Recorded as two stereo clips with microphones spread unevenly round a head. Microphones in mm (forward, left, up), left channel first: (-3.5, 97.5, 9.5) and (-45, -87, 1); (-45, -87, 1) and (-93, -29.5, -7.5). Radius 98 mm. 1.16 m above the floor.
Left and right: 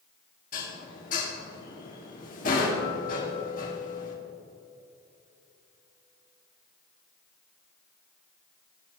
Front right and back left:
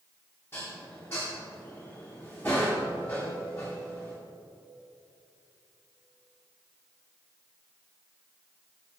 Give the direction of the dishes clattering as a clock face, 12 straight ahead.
11 o'clock.